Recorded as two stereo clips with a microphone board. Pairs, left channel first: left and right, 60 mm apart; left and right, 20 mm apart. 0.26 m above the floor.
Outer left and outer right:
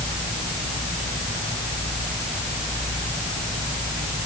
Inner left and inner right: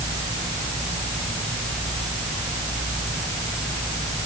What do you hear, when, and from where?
Only background noise.